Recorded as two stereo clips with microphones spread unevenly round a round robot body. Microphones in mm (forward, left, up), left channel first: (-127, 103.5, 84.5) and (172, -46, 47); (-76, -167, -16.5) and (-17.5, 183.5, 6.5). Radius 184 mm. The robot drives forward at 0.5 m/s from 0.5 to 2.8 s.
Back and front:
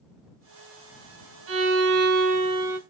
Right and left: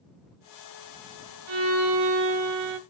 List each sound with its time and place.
1.5 s a violin: 25° left, 1.0 m; by 2.8 s 60° left, 0.5 m